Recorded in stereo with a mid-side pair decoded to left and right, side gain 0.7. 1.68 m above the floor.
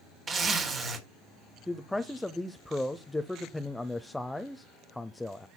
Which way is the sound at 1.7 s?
5° left.